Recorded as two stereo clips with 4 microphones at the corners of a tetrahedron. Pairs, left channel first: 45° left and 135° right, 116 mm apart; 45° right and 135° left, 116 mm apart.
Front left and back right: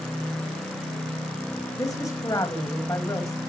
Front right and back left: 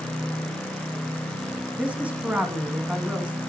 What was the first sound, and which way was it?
A woman speaking, 70° left.